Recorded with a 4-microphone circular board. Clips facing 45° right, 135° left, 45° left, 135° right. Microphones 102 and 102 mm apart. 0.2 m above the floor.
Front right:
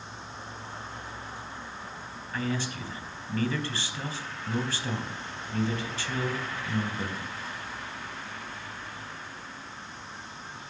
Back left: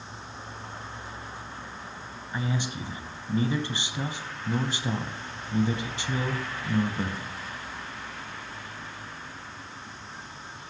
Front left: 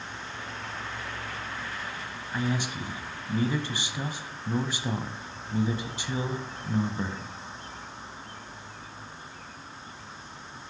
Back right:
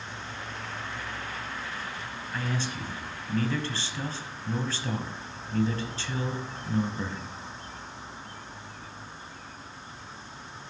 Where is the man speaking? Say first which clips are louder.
Even, front left 3 dB; 95° left, 1.0 m.